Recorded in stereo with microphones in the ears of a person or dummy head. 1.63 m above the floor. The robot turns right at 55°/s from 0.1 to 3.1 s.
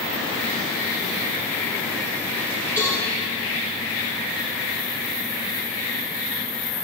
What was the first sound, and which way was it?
A cowbell, 10° right (ahead or behind).